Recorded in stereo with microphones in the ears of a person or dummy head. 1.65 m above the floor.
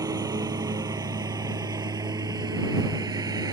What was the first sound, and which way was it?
A lawn mower, 20° right (ahead or behind).